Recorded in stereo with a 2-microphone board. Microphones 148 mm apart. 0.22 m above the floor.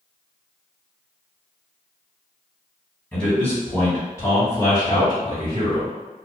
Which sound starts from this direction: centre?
A man speaking, at 3.1 s.